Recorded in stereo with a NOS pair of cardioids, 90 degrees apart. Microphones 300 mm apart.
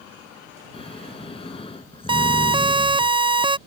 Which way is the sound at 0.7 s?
20° left.